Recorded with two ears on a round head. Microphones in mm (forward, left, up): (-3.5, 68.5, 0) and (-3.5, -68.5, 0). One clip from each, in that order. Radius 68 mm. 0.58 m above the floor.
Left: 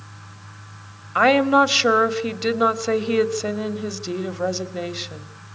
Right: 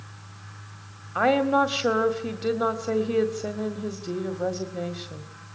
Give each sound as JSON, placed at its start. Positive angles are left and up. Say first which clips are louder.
{"t": 1.1, "sound": "a woman speaking", "louder": "left 6 dB", "side_deg": 50, "distance_m": 1.8}